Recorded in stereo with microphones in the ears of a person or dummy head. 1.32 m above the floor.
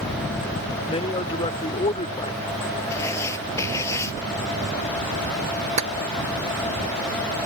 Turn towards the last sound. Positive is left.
turn(degrees=-80)